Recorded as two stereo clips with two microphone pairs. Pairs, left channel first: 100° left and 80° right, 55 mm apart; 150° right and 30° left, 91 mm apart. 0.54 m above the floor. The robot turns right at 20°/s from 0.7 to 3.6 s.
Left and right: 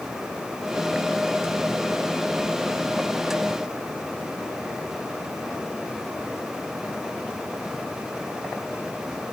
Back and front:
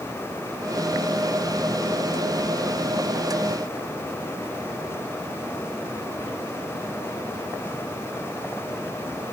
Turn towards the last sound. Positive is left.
No sound to turn to.